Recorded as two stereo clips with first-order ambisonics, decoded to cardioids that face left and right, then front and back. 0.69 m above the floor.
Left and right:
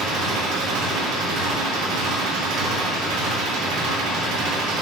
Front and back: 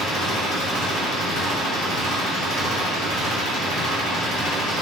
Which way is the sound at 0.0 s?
75° right.